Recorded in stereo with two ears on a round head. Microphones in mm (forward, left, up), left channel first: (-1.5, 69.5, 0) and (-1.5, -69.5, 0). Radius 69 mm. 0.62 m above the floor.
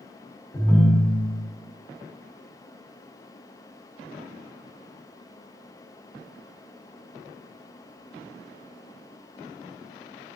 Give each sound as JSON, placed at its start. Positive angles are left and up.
{"t": 0.5, "sound": "a ringtone", "side_deg": 15, "distance_m": 0.8}